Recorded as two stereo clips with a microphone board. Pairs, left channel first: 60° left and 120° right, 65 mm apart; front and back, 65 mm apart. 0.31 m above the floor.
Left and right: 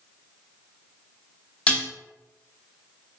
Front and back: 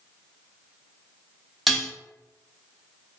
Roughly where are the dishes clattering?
Left.